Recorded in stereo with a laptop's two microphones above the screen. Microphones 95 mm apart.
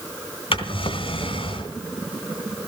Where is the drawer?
75° left (ahead or behind), 1.8 m.